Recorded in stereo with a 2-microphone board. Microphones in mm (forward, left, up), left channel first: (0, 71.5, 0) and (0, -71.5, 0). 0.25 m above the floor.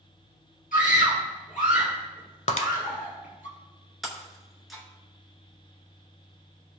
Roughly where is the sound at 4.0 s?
Centre.